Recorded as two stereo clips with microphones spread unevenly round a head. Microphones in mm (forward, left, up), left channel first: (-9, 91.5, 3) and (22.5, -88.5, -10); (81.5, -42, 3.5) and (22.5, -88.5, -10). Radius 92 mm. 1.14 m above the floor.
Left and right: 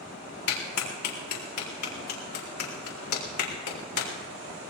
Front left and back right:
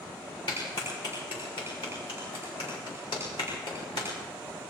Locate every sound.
0.5 s a clap: 100° left, 4 m